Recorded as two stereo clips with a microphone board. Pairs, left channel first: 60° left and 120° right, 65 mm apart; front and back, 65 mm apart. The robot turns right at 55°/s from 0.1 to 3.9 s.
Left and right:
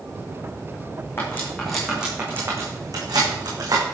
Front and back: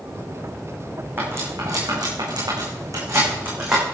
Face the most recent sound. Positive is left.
turn(degrees=-90)